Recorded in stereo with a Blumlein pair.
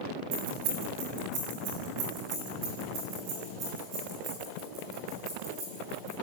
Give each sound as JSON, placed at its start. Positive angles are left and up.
{"t": 0.3, "sound": "keys jangling", "azimuth_deg": -45, "distance_m": 7.0}